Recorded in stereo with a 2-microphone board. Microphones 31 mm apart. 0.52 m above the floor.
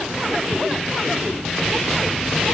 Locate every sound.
0.5 s ticking: 85° right, 3.5 m